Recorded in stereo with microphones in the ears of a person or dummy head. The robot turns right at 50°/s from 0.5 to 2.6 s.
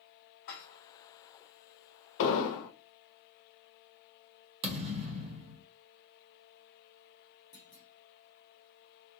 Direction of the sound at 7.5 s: 45° left (ahead or behind).